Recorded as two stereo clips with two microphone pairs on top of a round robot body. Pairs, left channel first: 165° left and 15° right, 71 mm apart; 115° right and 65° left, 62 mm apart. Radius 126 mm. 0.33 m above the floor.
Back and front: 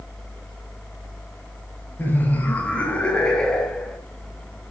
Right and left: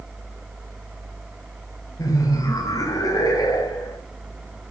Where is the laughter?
135° right, 2.5 m; by 4.0 s 110° right, 3 m.